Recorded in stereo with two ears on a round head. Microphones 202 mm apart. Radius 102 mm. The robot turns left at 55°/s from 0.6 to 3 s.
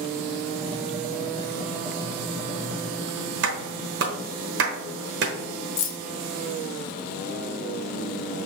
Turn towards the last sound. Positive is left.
turn(degrees=60)  # may be behind; listen again after turning